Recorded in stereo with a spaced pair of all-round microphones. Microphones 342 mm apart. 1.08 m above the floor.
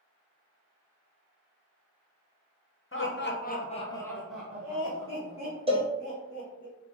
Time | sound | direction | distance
2.9 | laughter | 40° left (ahead or behind) | 0.8 m
5.7 | a cowbell | 15° right (ahead or behind) | 0.5 m